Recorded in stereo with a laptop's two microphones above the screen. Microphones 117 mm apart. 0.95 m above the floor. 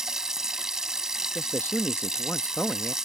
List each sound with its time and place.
0.0 s running water: 5° right (ahead or behind)
1.4 s a man speaking: 15° left (ahead or behind)